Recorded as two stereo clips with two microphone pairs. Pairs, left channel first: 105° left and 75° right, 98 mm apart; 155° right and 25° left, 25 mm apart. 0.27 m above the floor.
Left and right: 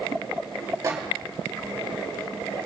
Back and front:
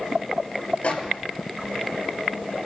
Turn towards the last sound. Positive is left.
turn(degrees=-130)